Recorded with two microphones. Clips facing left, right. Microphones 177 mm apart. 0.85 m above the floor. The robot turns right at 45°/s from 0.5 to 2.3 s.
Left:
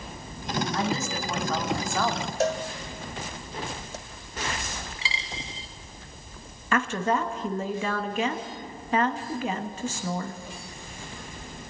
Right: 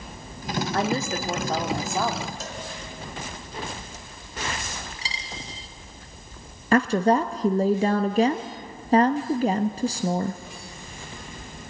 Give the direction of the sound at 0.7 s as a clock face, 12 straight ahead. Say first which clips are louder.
Right 3 dB; 2 o'clock.